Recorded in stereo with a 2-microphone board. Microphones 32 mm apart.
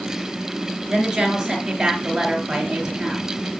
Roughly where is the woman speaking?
Centre.